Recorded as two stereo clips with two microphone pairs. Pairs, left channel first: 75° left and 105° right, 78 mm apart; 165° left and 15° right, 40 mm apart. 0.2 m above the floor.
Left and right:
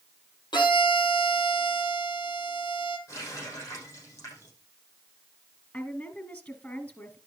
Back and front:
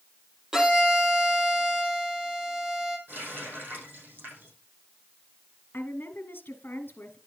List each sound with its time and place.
0.5 s a violin: 60° left, 3 m
3.1 s a running tap: 25° left, 5.5 m
5.7 s a woman speaking: 140° left, 2.5 m